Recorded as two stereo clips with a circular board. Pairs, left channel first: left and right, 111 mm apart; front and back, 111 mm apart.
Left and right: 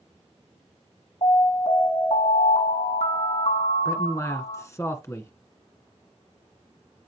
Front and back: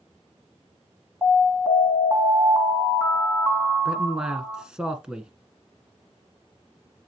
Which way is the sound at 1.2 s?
115° left.